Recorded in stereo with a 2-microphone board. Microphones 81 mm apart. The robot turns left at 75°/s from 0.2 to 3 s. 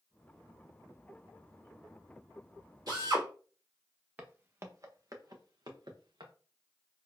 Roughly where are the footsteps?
Right.